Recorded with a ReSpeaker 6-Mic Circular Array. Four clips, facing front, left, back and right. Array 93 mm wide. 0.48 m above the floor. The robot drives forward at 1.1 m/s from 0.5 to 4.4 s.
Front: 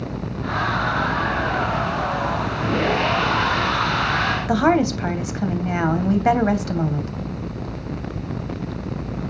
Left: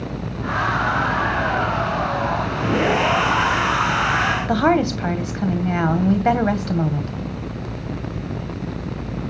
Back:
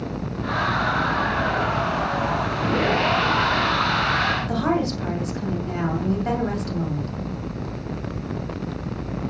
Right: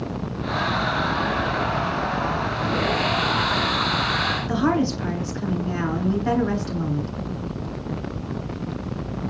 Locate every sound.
4.5 s a woman speaking: 50° left, 2.5 m